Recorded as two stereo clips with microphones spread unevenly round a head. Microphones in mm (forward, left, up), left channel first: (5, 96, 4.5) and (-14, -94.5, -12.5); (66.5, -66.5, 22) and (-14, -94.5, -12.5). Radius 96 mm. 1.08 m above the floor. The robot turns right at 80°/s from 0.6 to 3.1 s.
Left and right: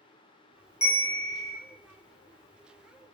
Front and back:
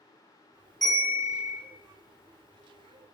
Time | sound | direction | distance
0.8 | a bell | 70° left | 0.8 m